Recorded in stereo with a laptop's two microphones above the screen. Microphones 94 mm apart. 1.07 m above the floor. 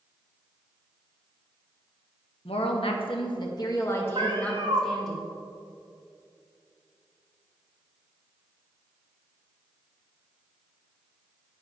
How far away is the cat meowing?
About 1.3 m.